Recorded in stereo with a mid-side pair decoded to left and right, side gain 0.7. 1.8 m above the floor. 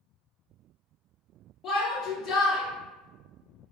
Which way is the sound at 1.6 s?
45° left.